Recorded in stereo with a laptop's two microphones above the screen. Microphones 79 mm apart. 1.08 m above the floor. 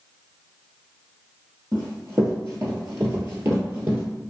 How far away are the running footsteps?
About 1.5 m.